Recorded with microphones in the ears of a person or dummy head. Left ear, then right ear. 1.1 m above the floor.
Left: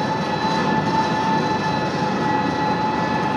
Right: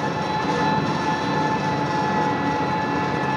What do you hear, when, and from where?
0.0 s an engine running: 20° right (ahead or behind), 4 m